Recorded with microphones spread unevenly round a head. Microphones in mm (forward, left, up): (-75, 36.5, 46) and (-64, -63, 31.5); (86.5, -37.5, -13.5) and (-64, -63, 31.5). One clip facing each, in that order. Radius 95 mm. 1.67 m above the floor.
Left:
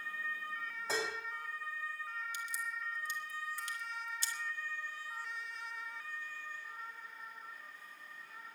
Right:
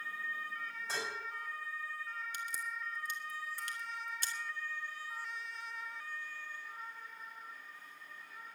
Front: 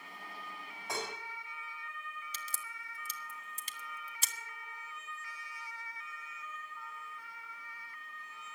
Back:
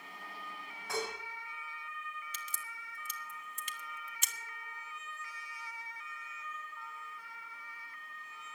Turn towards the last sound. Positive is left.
turn(degrees=-50)